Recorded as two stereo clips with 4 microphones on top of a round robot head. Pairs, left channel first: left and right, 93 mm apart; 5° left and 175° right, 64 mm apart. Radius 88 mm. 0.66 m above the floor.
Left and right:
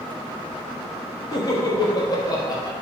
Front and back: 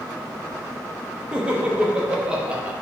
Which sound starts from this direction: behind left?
Laughter, at 1.3 s.